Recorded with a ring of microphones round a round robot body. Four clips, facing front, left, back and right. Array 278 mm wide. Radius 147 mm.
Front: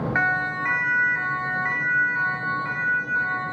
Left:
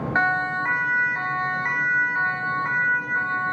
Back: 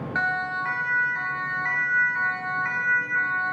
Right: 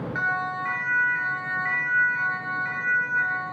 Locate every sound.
0.1 s a siren: 75° left, 4 m; by 3.5 s 105° left, 6 m